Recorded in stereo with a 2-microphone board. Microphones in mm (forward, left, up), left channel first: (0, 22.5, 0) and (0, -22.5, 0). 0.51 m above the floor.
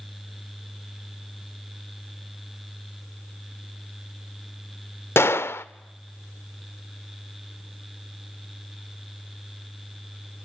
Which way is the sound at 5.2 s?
65° left (ahead or behind).